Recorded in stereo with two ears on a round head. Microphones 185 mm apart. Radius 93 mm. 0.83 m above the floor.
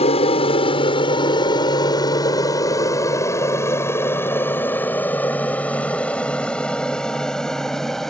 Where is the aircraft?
30° left (ahead or behind); by 8.1 s centre (ahead or behind).